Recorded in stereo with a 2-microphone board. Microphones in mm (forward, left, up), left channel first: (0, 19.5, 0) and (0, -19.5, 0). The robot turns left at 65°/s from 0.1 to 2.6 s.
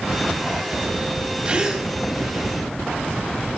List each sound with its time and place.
1.4 s a gasp: 25° right (ahead or behind), 2 m; by 1.9 s 5° left (ahead or behind), 2 m